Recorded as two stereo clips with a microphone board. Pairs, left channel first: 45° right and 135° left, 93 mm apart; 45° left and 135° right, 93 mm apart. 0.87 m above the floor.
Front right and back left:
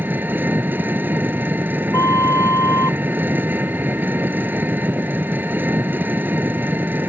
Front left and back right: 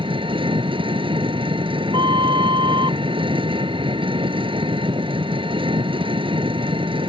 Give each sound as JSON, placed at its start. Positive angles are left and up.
{"t": 0.0, "sound": "an engine running", "azimuth_deg": -155}
{"t": 1.9, "sound": "a flute", "azimuth_deg": -100}